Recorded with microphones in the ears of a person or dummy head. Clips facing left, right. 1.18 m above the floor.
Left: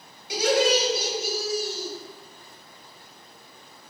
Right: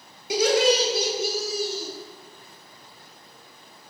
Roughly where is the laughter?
Right.